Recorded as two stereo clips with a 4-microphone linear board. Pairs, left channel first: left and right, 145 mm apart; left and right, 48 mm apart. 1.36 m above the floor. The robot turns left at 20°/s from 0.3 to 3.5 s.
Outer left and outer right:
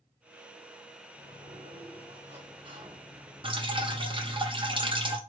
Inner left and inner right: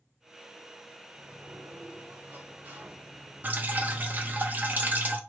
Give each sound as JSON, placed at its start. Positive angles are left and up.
{"t": 1.1, "sound": "a sliding door", "azimuth_deg": -110, "distance_m": 1.0}
{"t": 3.4, "sound": "dripping", "side_deg": -40, "distance_m": 0.7}